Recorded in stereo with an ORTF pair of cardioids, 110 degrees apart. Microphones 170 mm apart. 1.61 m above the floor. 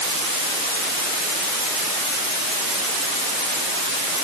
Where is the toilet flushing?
No toilet flushing in this recording.